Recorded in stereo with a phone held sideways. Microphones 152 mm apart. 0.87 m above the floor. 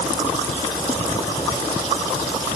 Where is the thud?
No thud in this recording.